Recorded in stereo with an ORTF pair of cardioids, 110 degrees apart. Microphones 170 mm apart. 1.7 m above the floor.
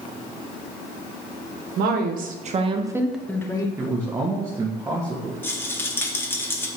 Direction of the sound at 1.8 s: 70° right.